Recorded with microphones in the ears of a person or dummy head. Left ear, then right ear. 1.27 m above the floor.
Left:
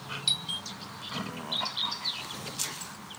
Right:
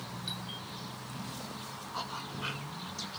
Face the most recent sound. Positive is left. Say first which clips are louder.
# left 12 dB
turn(degrees=45)  # may be behind; listen again after turning